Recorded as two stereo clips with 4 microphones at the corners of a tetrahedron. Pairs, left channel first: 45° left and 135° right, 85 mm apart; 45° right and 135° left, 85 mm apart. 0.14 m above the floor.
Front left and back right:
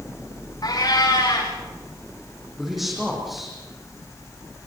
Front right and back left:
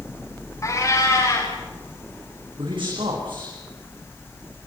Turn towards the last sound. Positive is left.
turn(degrees=135)